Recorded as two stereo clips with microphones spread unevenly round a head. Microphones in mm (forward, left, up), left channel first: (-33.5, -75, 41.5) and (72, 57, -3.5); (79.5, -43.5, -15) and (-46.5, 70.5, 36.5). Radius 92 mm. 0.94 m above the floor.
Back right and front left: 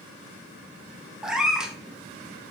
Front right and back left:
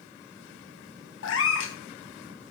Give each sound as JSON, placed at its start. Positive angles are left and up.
{"t": 1.2, "sound": "a cat meowing", "azimuth_deg": -40, "distance_m": 0.7}